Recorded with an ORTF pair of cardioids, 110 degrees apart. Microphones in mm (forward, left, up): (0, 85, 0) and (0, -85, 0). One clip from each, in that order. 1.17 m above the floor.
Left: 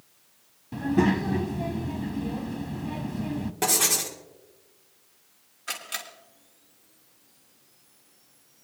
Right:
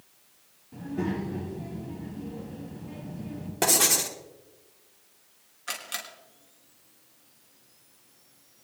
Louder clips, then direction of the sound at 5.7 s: Left 1 dB; 5° right.